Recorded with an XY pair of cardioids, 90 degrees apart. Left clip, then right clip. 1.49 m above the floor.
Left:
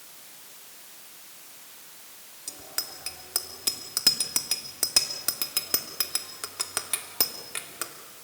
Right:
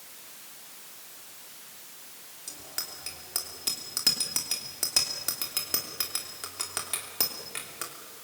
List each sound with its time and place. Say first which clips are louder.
2.5 s a bicycle bell: left 3 dB; 30° left, 3 m